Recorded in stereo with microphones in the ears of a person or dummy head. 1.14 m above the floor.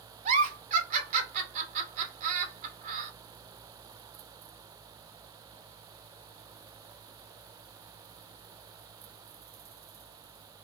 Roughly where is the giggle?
Right.